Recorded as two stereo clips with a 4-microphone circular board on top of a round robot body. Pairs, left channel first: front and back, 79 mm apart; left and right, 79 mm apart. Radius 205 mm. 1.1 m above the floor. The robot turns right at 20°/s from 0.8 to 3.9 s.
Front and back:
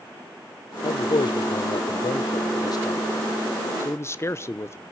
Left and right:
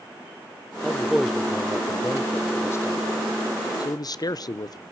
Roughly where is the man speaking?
Ahead.